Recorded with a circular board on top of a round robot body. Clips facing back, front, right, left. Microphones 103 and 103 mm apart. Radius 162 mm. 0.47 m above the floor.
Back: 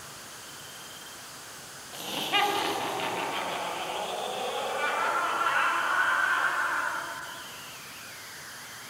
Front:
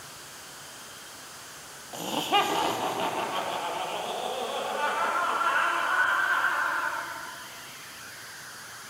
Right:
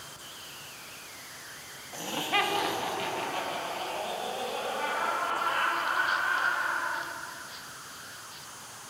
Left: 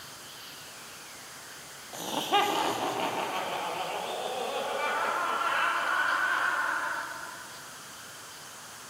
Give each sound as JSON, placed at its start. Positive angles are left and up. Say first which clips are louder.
{"t": 1.9, "sound": "laughter", "louder": "front 4 dB, left 3 dB", "azimuth_deg": 15, "distance_m": 0.8}